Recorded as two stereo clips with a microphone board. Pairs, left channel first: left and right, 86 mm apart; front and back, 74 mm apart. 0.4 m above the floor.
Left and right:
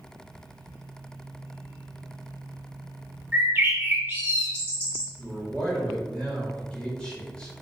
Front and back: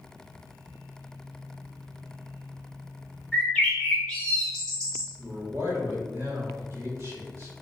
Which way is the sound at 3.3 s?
65° right.